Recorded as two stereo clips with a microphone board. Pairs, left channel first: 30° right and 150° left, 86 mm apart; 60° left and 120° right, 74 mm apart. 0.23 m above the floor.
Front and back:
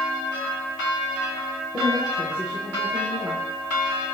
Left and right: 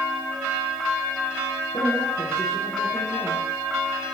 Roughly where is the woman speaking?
Left.